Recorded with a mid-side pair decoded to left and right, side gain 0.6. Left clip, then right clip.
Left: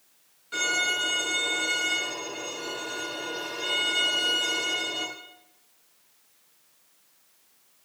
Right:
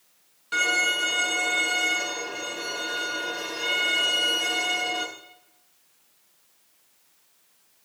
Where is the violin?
45° right, 7 m.